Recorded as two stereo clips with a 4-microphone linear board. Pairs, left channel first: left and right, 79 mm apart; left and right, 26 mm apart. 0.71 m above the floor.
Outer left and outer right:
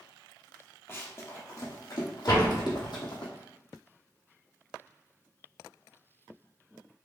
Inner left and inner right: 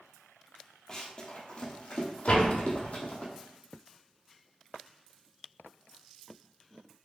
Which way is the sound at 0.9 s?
30° left (ahead or behind).